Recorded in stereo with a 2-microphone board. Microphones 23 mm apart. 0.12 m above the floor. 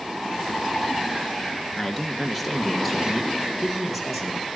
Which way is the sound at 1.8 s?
10° left (ahead or behind).